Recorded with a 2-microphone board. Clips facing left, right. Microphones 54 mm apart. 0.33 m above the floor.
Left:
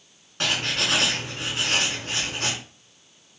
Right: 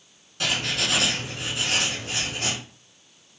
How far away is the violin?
No violin in this recording.